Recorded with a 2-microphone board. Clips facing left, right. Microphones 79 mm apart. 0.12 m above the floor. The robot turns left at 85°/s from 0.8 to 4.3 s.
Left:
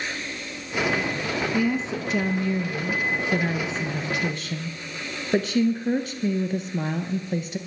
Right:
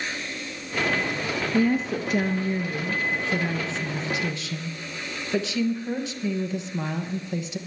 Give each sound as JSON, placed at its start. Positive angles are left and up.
{"t": 1.5, "sound": "a woman speaking", "azimuth_deg": -50, "distance_m": 2.0}